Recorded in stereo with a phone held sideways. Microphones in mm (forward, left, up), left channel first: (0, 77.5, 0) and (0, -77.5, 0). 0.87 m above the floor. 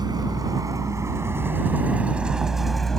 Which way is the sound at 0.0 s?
25° right (ahead or behind).